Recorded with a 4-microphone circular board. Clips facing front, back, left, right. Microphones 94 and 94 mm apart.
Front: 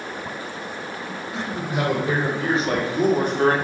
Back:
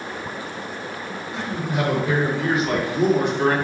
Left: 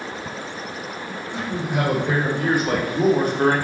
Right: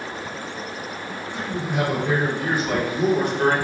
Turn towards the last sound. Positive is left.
turn(degrees=40)